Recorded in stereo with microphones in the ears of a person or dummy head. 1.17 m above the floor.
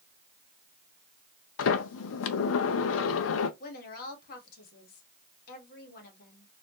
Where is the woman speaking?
50° left (ahead or behind), 1.4 m.